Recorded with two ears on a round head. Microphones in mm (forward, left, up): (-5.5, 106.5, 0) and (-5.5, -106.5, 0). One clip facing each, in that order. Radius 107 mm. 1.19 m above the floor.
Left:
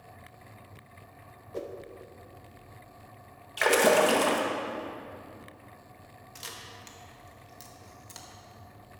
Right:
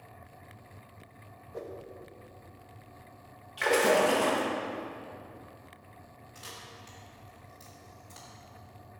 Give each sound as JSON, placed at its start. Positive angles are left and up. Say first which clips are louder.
{"t": 1.5, "sound": "a whoosh", "louder": "left 3 dB", "side_deg": 40, "distance_m": 0.7}
{"t": 3.6, "sound": "a splash", "louder": "left 2 dB", "side_deg": 65, "distance_m": 1.5}
{"t": 6.3, "sound": "a camera shutter", "louder": "left 1 dB", "side_deg": 65, "distance_m": 1.6}